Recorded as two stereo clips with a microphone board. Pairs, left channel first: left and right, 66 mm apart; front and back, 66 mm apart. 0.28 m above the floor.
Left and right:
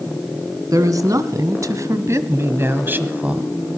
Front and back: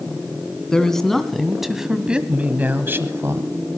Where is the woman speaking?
80° right, 2 m; by 3.5 s 155° right, 1.4 m.